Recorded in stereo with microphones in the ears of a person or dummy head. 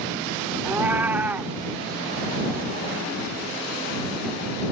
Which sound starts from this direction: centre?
A cat meowing, at 0.7 s.